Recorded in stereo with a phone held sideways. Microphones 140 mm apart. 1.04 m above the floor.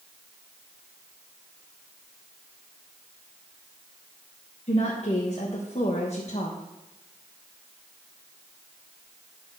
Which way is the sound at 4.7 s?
50° left (ahead or behind).